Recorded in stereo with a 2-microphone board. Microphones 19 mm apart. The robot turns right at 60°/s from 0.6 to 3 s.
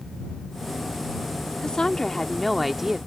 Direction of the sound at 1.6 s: 120° left.